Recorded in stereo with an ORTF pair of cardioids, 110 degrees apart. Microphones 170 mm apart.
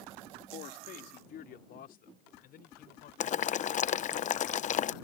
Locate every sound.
0.5 s a man speaking: 65° left; by 3.1 s 60° left
3.2 s boiling: 45° left